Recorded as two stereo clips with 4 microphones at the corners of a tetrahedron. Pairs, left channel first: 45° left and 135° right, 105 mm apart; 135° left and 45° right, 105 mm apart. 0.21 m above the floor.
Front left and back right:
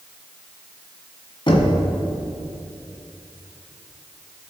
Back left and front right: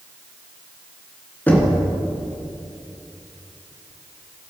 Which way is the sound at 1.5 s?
65° left.